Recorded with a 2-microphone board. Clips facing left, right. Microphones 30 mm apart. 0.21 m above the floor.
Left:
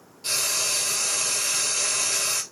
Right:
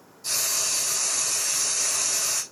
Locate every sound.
0.2 s frying: 55° left (ahead or behind), 2 m